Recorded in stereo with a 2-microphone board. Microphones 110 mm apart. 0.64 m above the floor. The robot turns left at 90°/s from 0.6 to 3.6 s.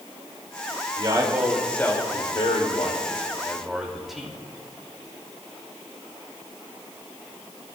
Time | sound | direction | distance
1.0 | a man speaking | 125° right | 2.5 m